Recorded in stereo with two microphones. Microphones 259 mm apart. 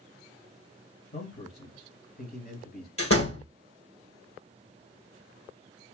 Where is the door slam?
55° left (ahead or behind), 2 m.